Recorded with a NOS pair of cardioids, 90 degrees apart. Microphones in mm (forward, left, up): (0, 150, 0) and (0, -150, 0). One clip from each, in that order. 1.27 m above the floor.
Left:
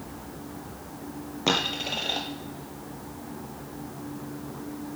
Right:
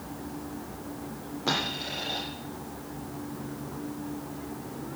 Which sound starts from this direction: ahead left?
A dropped coin, at 1.5 s.